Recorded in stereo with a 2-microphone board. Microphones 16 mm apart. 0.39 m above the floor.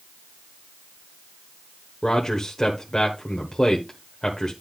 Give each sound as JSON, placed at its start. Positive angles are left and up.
{"t": 2.0, "sound": "a man speaking", "side_deg": 40, "distance_m": 1.2}